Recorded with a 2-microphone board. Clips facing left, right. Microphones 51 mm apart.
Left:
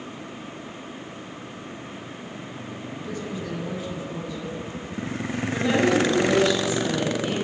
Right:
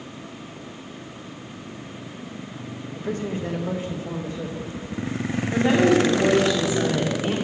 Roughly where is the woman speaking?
Right.